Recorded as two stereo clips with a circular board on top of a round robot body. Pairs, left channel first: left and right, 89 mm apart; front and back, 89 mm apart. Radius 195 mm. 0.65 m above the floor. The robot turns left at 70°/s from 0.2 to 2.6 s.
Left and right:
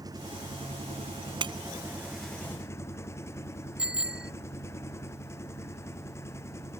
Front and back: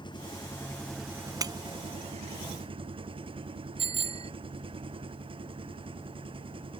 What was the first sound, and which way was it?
An engine running, 40° right.